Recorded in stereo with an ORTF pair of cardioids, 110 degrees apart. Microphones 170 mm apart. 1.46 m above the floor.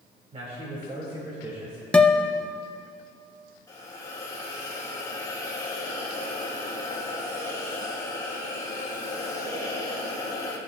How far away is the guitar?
About 0.7 m.